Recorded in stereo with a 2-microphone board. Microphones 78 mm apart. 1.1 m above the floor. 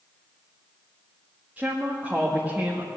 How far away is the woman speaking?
About 1.6 m.